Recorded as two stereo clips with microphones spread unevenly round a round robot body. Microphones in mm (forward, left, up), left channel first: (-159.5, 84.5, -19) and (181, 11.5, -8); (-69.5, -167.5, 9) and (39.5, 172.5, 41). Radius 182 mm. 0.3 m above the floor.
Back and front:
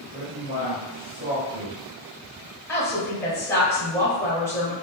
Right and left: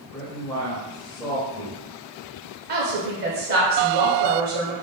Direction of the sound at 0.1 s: 30° right.